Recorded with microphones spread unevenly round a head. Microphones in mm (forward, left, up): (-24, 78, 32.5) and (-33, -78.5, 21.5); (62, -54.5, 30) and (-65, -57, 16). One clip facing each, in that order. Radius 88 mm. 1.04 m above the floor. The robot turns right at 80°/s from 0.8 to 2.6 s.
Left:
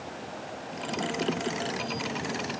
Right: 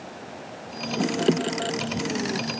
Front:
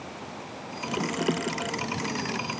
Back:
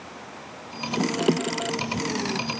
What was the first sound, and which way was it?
Only background noise.